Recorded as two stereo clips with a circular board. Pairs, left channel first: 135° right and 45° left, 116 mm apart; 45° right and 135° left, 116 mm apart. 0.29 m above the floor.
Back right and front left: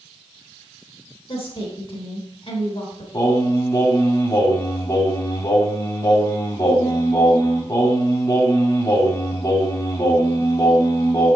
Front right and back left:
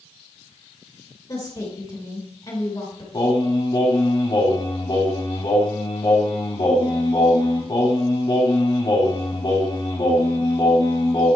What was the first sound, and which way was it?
A woman speaking, 95° right.